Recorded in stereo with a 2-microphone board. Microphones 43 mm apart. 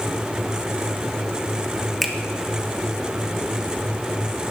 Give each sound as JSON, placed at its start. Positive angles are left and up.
{"t": 2.0, "sound": "a finger snap", "side_deg": -5, "distance_m": 0.8}